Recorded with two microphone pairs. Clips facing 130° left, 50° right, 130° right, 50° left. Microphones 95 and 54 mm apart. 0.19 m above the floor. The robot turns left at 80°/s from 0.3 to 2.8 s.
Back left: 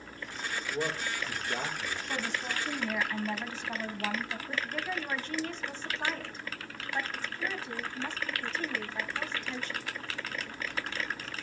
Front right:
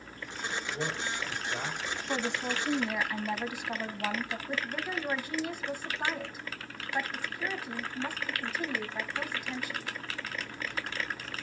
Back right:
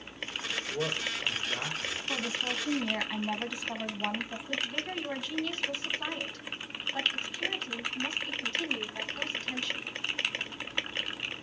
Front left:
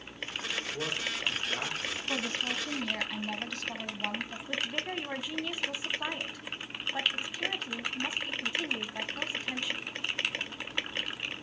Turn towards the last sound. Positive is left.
turn(degrees=0)